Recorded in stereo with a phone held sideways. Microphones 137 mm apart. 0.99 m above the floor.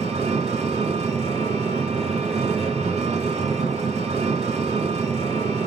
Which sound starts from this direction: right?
An engine running, at 0.0 s.